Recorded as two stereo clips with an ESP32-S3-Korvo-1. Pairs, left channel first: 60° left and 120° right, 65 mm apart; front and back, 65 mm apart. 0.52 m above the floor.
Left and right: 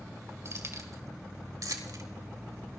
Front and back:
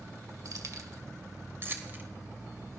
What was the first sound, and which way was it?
Keys jangling, 160° right.